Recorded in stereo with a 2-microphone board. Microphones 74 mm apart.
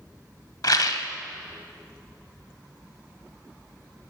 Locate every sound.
0.6 s a rattle: 65° left (ahead or behind), 0.8 m